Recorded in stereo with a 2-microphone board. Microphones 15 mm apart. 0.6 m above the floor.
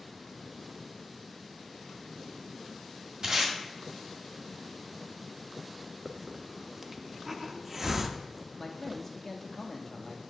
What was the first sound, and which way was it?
Tape being pulled, 55° right (ahead or behind).